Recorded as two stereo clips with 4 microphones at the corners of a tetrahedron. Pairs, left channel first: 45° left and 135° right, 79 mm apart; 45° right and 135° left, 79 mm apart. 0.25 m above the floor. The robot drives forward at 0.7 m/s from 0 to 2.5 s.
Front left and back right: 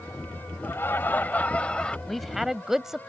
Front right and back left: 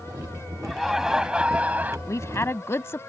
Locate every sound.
0.6 s laughter: 45° left; by 2.0 s 110° left
2.1 s a woman speaking: 40° right; by 3.0 s 55° right